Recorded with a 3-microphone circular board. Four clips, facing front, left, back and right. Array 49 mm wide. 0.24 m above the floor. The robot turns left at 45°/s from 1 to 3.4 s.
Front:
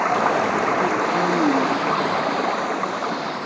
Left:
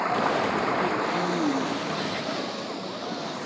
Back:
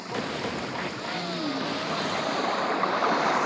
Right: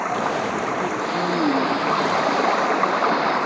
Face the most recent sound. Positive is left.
turn(degrees=-115)